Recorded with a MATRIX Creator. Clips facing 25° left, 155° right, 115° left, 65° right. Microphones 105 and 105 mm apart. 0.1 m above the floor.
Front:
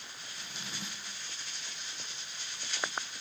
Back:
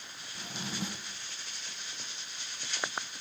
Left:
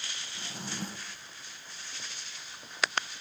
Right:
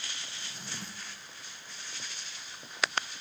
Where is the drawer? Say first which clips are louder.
Back 8 dB, left 5 dB; 155° left, 1.3 m.